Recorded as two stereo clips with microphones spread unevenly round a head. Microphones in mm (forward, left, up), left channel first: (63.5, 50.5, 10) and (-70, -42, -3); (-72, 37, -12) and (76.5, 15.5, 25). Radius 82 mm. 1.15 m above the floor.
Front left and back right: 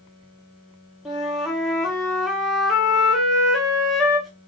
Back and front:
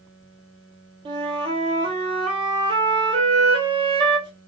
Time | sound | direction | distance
1.1 | a flute | 65° right | 0.7 m